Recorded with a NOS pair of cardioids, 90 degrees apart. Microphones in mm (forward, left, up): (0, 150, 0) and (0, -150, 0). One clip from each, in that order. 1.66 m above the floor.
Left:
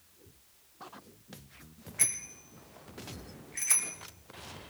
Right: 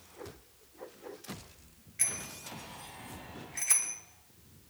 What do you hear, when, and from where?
2.0 s a bicycle bell: 25° left, 3 m; by 4.0 s 5° right, 3.5 m